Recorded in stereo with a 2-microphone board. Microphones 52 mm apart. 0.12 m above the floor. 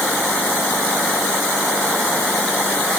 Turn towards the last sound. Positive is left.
No sound to turn to.